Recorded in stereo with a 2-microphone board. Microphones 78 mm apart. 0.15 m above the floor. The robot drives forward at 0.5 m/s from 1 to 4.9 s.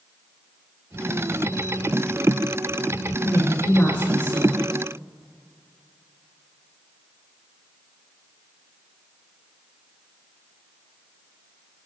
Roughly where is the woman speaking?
Left.